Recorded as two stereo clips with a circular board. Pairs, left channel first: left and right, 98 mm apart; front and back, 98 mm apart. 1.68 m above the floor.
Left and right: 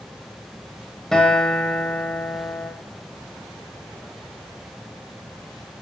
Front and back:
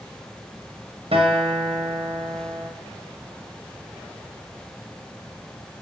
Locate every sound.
1.1 s a guitar: 175° left, 1.5 m